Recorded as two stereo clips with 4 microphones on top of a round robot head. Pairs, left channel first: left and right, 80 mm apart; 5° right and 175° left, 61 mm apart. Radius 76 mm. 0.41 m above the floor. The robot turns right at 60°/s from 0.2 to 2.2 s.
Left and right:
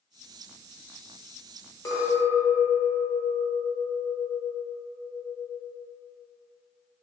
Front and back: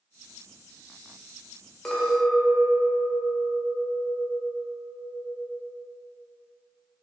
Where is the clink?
70° left, 0.9 m; by 5.7 s 90° left, 0.9 m.